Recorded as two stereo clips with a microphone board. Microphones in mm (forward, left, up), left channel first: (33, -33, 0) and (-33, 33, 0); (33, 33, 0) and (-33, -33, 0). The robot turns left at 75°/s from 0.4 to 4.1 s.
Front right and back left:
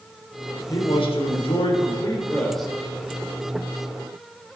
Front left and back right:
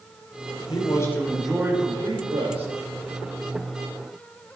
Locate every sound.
0.7 s a man speaking: 10° left, 3.5 m; by 2.7 s 145° right, 3.5 m